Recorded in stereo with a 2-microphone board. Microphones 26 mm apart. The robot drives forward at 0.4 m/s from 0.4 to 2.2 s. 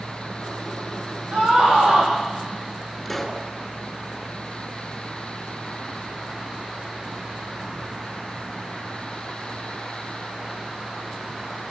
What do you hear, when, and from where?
1.3 s a scream: 55° right (ahead or behind), 10 m; by 2.1 s 60° right (ahead or behind), 9.5 m
3.0 s a pop: 5° left (ahead or behind), 2.5 m